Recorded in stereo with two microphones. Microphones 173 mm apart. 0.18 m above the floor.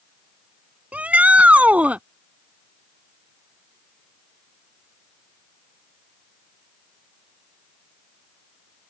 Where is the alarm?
I don't hear an alarm.